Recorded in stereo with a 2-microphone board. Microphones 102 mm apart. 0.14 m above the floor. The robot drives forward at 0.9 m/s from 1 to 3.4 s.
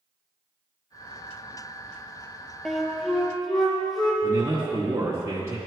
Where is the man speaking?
25° right (ahead or behind), 1.2 m.